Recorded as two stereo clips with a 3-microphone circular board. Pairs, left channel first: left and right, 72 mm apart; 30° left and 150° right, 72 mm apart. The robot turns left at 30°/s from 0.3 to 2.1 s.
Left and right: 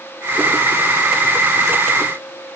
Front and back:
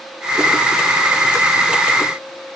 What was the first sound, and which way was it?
Only background noise.